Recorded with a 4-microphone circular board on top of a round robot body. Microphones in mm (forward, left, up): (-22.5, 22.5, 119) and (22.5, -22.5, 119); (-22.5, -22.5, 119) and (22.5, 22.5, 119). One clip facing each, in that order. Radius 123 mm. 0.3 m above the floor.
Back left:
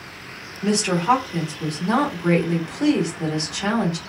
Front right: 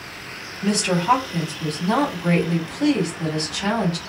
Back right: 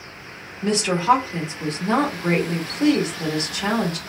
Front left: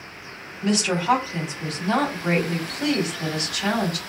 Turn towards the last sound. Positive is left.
turn(degrees=-165)